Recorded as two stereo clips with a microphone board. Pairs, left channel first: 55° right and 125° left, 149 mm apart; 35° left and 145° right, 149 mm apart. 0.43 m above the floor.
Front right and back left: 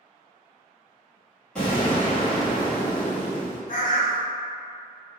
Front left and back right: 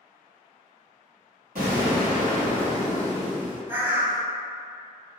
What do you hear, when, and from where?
1.6 s an explosion: 140° right, 1.9 m
3.7 s a bird: 70° right, 0.5 m